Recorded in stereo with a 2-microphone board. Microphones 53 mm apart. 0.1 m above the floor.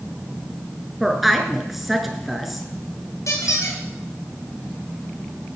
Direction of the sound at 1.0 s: 5° right (ahead or behind).